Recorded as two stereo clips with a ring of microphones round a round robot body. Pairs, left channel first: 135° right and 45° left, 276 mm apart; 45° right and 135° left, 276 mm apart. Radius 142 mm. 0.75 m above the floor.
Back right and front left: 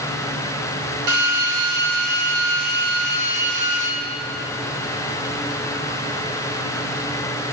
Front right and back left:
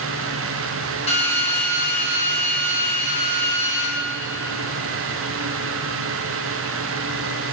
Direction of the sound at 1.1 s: 25° left.